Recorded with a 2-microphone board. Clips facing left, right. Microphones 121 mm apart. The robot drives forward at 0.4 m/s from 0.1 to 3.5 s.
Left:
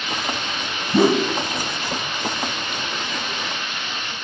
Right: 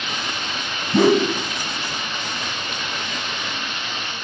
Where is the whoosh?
5° left (ahead or behind), 1.9 m.